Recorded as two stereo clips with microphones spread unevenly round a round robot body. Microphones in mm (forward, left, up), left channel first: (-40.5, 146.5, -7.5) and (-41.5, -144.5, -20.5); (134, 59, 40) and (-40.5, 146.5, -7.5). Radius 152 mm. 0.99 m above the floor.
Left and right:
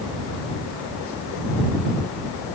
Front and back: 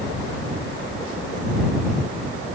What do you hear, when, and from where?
Only background noise.